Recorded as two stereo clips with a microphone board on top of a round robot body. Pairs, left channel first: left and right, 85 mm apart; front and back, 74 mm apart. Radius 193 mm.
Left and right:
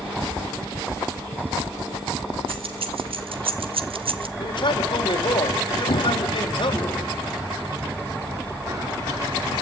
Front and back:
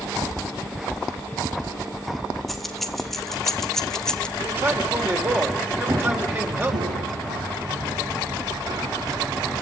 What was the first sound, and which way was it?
Keys jangling, 90° right.